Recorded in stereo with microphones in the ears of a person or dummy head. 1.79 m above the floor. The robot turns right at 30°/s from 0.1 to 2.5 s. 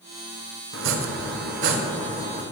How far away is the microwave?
No microwave in this recording.